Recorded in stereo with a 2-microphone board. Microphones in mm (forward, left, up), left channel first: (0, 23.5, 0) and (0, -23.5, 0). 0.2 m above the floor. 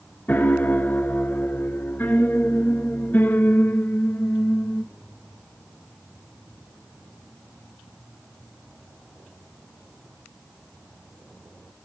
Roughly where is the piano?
Left.